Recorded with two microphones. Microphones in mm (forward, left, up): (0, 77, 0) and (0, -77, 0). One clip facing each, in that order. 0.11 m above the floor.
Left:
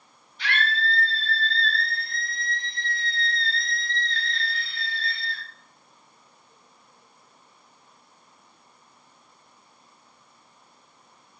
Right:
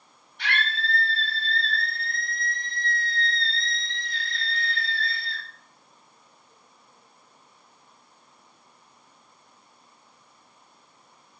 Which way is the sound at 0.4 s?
60° right (ahead or behind).